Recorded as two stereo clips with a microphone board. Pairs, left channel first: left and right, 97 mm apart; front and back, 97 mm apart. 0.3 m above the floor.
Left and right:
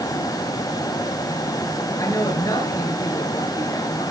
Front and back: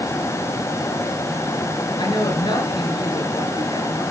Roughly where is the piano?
No piano in this recording.